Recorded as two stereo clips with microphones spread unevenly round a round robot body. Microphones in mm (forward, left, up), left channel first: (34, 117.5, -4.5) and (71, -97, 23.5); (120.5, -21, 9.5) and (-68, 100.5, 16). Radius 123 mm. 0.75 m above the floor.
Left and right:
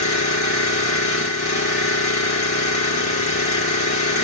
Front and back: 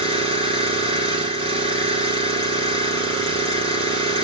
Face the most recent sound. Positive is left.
turn(degrees=85)